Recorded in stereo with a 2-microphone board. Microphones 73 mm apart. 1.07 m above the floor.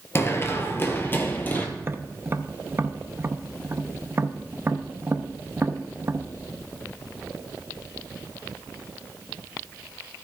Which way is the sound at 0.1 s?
35° left (ahead or behind).